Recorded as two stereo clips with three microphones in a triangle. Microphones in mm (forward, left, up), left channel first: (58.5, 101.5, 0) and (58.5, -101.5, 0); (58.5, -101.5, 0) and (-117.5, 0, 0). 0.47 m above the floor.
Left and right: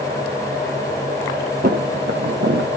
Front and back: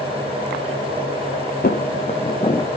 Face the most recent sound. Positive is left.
turn(degrees=-105)